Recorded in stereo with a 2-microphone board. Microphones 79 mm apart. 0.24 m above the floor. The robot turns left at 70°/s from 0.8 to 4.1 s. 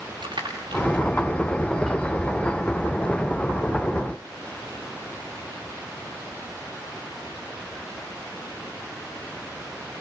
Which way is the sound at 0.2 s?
75° right (ahead or behind).